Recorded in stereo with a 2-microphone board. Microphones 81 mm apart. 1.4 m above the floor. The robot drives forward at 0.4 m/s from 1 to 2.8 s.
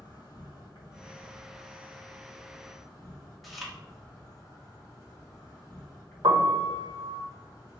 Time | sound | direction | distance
0.0 | an insect | 55° left (ahead or behind) | 1.5 m
3.4 | chewing | centre (ahead or behind) | 0.8 m
6.2 | a piano | 70° right (ahead or behind) | 0.7 m